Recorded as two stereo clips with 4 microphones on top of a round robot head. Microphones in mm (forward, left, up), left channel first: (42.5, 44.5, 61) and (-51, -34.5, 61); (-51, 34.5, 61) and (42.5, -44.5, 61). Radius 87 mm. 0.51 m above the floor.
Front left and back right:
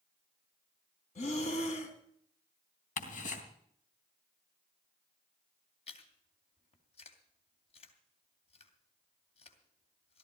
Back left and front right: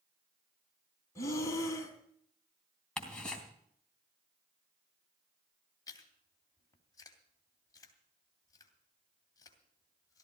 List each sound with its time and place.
1.1 s breathing: 70° left, 3 m
3.0 s ticking: 55° left, 3 m
5.9 s chewing: 80° left, 2.5 m